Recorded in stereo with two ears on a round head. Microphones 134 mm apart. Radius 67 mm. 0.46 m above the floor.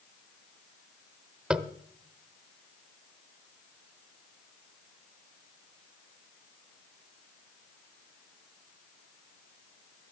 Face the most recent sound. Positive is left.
turn(degrees=-5)  # may be behind; listen again after turning